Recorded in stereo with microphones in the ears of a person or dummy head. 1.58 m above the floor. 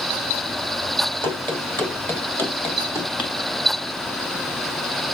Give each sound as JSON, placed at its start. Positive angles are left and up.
{"t": 1.2, "sound": "running footsteps", "side_deg": 5, "distance_m": 1.9}